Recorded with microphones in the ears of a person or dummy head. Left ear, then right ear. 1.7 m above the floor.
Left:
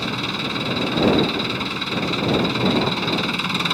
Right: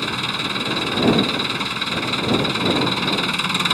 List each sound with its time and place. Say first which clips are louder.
0.0 s an engine running: right 2 dB; 15° right (ahead or behind)